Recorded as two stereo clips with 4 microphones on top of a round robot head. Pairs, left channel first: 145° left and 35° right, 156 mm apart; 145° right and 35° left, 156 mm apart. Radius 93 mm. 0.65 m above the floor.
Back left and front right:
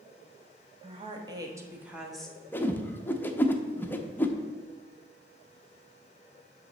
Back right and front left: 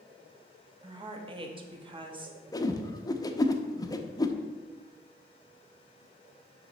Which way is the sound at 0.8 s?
5° right.